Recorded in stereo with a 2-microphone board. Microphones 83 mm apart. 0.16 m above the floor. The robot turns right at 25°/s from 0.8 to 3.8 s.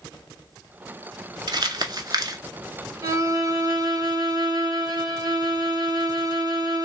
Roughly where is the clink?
No clink in this recording.